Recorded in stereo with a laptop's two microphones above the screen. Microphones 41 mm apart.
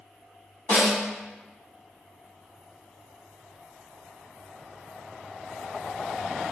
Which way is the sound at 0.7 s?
75° left (ahead or behind).